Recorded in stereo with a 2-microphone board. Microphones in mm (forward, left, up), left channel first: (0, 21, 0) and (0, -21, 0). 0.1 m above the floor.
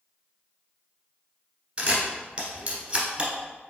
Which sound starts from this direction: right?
A camera shutter, at 1.8 s.